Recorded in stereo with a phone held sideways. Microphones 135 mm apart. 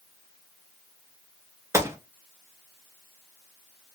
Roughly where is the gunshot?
Centre.